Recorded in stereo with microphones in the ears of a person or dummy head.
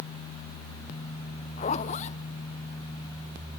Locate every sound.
1.6 s a zipper: 35° left (ahead or behind), 1.1 m